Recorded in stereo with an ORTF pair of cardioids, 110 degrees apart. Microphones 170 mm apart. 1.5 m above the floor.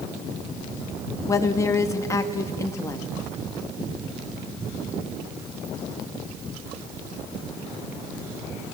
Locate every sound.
1.3 s a woman speaking: 20° left, 2 m